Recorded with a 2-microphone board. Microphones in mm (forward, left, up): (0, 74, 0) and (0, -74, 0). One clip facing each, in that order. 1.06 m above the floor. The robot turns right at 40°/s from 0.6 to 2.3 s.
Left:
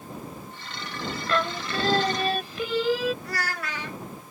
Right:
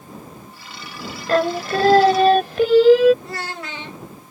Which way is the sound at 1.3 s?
130° right.